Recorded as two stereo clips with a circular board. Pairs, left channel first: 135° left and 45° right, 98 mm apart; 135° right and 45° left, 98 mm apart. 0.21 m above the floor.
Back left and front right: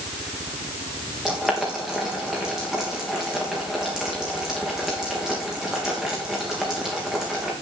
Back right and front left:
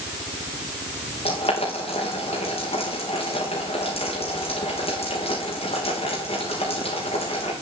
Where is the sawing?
No sawing in this recording.